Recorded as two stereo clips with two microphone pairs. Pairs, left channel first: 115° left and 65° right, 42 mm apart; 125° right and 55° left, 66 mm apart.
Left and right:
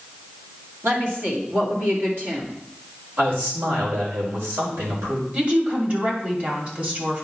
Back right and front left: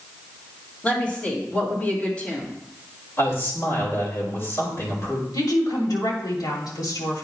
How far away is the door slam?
I don't hear a door slam.